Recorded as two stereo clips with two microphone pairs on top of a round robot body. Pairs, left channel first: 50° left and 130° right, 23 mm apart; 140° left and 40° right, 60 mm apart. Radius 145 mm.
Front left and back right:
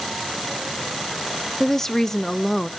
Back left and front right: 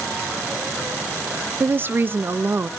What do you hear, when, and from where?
1.6 s a woman speaking: 5° left, 0.5 m